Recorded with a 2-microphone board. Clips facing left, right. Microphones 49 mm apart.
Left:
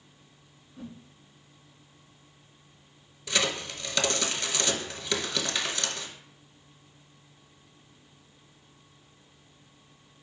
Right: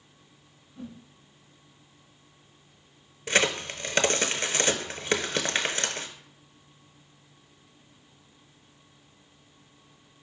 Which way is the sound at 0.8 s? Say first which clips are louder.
Right 1 dB; 10° left (ahead or behind).